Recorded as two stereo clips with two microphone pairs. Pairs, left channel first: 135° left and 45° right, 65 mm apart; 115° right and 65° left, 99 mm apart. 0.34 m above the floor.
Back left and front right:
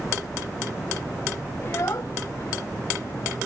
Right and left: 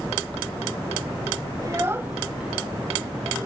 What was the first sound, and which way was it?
A child speaking, 100° left.